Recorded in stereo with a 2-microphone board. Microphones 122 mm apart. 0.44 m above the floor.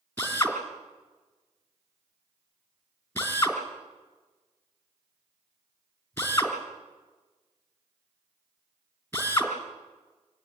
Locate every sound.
0.2 s a drill: 20° left (ahead or behind), 3 m